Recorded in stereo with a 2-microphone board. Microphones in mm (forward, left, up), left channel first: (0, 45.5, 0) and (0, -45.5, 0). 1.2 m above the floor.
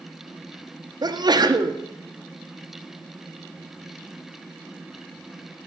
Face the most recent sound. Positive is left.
turn(degrees=-50)  # may be behind; listen again after turning